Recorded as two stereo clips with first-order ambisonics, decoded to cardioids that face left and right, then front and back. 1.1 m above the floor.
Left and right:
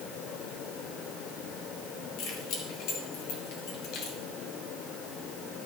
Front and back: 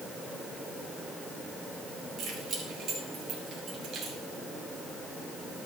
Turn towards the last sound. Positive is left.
turn(degrees=120)